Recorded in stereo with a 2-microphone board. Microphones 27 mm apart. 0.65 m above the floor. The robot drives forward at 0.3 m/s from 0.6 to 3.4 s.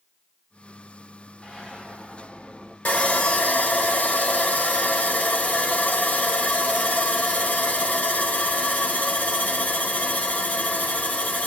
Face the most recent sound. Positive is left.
turn(degrees=80)